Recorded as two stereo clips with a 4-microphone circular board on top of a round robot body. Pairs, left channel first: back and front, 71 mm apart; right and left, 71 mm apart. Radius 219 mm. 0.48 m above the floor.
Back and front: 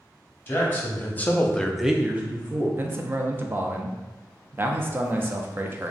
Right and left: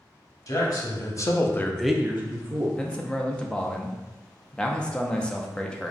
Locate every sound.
0.5 s a man speaking: 120° right, 1.4 m; by 2.7 s 55° left, 1.0 m
2.8 s a man speaking: 25° right, 0.8 m